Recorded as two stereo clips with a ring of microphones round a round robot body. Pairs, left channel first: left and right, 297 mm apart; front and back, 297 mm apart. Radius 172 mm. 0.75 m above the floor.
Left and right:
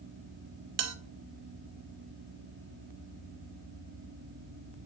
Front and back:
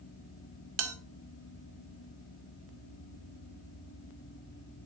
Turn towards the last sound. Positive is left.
turn(degrees=-140)